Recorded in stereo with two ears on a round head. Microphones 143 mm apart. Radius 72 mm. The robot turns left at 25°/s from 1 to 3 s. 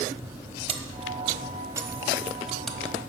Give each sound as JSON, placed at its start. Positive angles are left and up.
{"t": 0.7, "sound": "keys jangling", "side_deg": -35, "distance_m": 1.4}